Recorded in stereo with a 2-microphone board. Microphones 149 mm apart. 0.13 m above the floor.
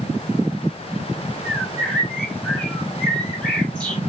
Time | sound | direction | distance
1.4 | a bird | 5° left (ahead or behind) | 4.5 m